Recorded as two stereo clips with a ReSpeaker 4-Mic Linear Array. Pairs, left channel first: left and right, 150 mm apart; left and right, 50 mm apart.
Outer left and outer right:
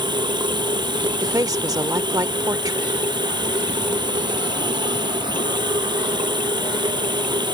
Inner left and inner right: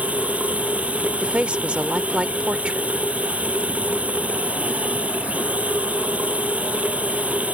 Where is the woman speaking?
20° right (ahead or behind).